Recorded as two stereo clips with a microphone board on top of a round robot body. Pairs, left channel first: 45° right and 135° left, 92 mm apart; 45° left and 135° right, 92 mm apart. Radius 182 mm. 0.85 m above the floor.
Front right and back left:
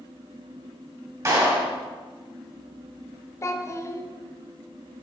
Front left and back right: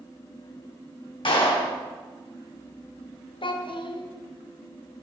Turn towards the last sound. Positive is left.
turn(degrees=15)